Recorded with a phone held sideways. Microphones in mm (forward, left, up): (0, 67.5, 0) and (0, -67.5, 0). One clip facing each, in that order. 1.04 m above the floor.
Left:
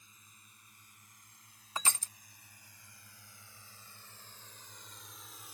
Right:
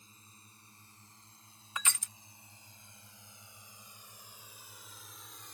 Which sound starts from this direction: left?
Crushing, at 1.8 s.